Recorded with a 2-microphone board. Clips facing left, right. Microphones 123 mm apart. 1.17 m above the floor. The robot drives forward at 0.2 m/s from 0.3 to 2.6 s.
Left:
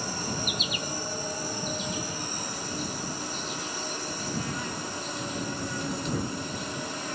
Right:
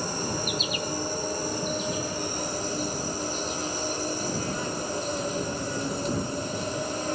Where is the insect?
35° right (ahead or behind), 1.0 m.